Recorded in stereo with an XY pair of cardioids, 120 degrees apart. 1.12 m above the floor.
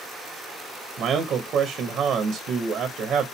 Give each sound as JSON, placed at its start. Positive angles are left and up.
{"t": 1.0, "sound": "a man speaking", "azimuth_deg": -60, "distance_m": 0.9}